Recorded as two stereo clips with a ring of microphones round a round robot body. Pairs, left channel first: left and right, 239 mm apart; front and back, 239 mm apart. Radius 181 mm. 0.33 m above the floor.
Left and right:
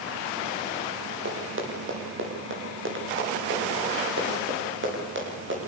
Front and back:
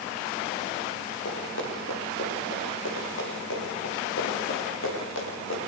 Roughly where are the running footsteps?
Ahead right.